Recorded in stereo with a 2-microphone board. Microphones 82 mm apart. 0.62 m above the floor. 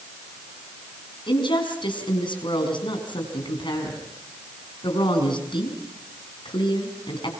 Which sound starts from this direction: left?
A woman speaking, at 1.3 s.